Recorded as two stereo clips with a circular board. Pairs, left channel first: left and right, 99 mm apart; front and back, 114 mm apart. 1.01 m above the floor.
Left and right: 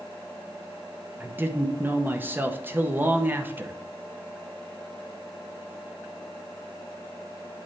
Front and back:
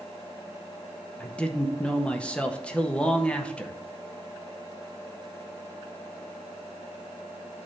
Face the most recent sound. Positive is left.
turn(degrees=-60)